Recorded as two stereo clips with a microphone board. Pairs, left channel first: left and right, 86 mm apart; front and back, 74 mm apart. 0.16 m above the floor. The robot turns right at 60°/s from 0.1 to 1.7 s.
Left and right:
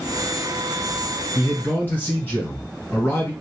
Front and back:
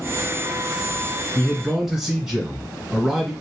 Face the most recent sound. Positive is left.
turn(degrees=105)